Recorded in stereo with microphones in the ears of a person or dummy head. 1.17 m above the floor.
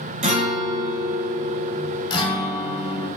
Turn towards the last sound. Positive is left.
turn(degrees=30)  # may be behind; listen again after turning